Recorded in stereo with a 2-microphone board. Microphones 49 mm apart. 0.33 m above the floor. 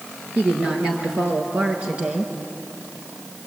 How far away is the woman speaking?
About 5 m.